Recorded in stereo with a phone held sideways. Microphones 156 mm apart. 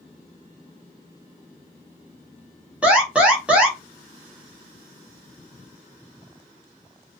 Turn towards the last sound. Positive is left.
turn(degrees=-10)  # may be behind; listen again after turning